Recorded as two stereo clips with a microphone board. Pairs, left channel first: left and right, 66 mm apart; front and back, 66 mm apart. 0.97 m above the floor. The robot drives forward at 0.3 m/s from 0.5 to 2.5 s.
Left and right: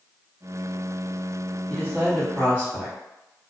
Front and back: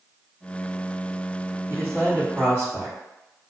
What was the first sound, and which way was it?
A man speaking, 145° left.